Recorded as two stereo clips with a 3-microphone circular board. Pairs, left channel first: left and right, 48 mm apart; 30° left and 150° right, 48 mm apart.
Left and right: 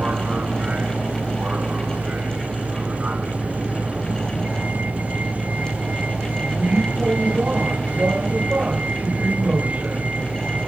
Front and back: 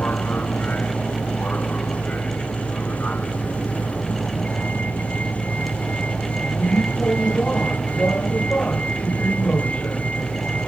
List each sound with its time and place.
0.0 s a vehicle: 30° right